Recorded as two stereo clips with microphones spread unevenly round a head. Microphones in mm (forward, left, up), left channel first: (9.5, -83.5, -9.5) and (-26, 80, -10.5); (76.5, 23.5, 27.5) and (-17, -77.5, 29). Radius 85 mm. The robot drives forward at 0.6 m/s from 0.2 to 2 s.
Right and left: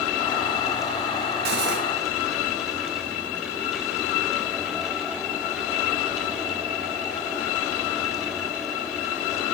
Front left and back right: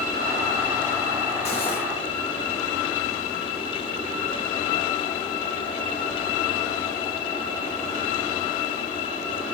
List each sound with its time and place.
1.4 s cutlery clinking: 100° left, 1.5 m; by 1.8 s 110° left, 1.5 m